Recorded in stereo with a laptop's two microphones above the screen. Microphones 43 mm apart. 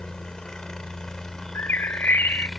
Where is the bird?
55° left (ahead or behind).